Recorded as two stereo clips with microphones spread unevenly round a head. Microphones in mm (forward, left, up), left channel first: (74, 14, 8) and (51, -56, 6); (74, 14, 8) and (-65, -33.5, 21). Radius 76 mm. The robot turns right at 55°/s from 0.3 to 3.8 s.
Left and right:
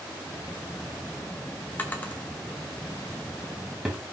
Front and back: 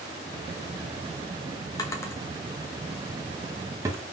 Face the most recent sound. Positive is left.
turn(degrees=180)